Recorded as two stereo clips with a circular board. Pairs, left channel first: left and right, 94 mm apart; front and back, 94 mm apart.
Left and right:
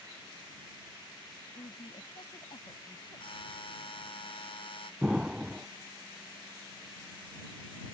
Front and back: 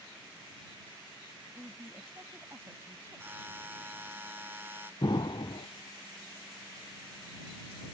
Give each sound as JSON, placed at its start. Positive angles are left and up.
{"t": 1.5, "sound": "a woman speaking", "azimuth_deg": 120}
{"t": 3.2, "sound": "a buzzer", "azimuth_deg": 110}
{"t": 5.0, "sound": "an explosion", "azimuth_deg": -10}